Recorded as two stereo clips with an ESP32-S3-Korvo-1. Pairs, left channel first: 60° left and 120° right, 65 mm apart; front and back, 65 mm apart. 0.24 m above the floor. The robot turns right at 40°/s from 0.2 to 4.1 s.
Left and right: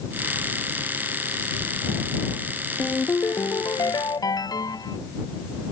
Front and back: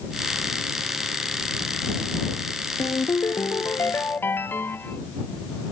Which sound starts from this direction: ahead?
A ringtone, at 2.8 s.